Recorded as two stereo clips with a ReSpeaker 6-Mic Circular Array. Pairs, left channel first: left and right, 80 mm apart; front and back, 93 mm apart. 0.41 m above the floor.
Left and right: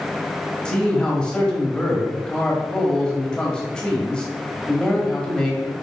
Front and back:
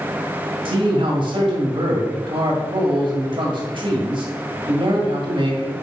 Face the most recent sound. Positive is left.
turn(degrees=165)